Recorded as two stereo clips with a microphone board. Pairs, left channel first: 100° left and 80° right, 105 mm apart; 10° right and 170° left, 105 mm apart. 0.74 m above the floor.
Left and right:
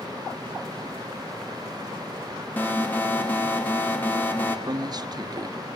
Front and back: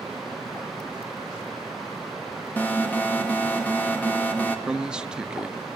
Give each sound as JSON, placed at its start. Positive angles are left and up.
{"t": 2.6, "sound": "an alarm", "azimuth_deg": 50, "distance_m": 1.8}
{"t": 4.7, "sound": "a man speaking", "azimuth_deg": -110, "distance_m": 0.6}